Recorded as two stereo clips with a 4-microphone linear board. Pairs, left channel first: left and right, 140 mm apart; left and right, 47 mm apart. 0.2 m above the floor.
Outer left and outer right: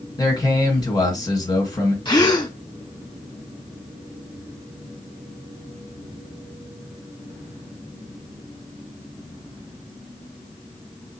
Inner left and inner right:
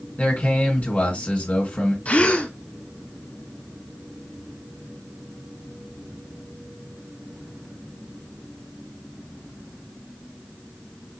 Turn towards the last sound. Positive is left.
turn(degrees=30)  # may be behind; listen again after turning